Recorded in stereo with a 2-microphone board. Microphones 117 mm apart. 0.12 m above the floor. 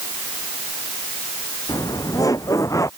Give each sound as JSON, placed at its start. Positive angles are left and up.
{"t": 1.7, "sound": "laughter", "side_deg": 30}